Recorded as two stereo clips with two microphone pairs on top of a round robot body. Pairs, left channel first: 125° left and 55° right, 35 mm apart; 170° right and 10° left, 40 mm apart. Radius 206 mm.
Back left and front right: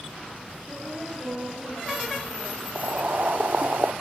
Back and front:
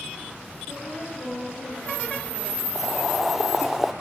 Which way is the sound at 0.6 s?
140° right.